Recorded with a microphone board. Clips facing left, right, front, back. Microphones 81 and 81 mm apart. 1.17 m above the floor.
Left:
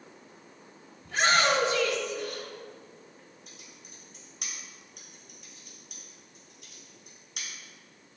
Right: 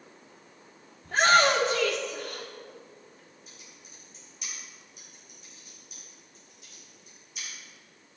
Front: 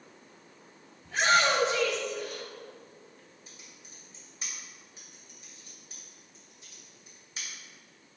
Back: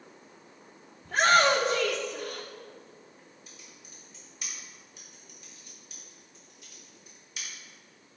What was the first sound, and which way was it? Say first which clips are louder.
A shout: right 3 dB, back 3 dB; 140° right.